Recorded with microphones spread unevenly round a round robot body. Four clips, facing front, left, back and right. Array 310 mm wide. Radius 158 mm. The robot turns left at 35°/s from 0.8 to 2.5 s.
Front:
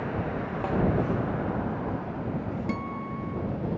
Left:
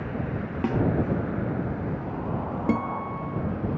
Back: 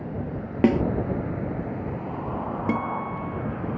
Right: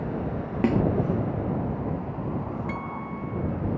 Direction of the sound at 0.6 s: 165° right.